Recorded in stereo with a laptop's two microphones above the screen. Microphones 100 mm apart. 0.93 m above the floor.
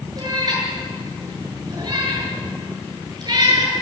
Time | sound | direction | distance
0.2 | a cat meowing | 45° right (ahead or behind) | 8.5 m